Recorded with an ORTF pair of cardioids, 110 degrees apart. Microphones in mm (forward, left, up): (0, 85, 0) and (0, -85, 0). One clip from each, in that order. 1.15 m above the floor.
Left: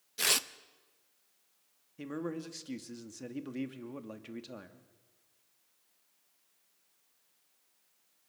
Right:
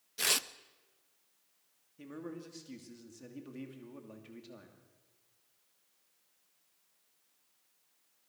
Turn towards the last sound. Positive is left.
turn(degrees=40)